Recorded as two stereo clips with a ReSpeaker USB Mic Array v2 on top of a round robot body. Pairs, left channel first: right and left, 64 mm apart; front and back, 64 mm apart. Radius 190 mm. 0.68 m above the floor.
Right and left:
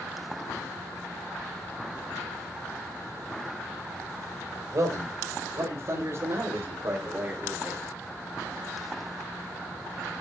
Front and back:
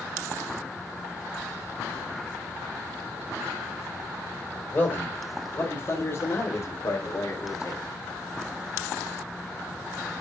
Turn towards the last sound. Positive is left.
turn(degrees=30)